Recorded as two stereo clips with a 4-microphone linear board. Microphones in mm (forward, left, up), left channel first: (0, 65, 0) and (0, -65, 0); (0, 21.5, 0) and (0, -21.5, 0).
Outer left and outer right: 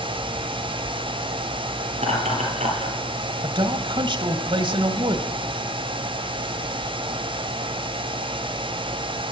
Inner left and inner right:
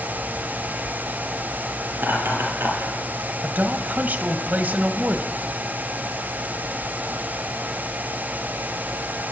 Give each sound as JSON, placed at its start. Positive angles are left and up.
{"t": 1.9, "sound": "laughter", "side_deg": -60, "distance_m": 6.5}
{"t": 3.4, "sound": "a man speaking", "side_deg": -40, "distance_m": 1.6}